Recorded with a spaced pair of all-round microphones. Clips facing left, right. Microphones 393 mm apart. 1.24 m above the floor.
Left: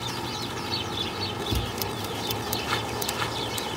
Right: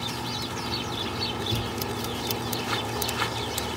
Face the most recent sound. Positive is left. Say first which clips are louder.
# even
turn(degrees=35)  # may be behind; listen again after turning